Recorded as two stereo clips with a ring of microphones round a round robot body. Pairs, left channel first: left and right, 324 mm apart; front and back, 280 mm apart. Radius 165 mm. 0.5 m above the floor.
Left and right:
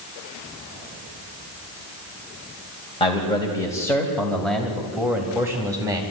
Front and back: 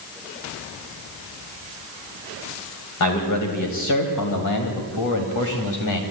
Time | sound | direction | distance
3.0 | a man speaking | 15° left | 3 m